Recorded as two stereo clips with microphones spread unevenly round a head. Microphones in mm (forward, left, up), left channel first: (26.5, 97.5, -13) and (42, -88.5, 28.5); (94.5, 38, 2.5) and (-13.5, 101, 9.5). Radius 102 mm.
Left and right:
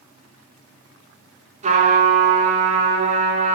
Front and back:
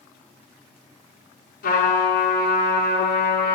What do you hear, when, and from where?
1.6 s a trumpet: 35° right, 6 m